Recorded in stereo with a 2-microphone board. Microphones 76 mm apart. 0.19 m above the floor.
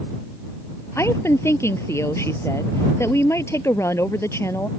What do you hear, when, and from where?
0.9 s a woman speaking: 35° left (ahead or behind)